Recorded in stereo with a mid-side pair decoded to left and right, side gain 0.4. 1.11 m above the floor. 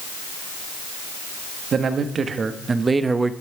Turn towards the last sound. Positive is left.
turn(degrees=-20)